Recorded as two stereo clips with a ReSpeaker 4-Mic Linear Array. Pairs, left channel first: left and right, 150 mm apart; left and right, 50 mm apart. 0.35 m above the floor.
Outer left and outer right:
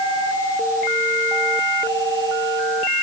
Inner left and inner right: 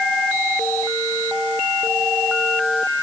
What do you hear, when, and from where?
Only background noise.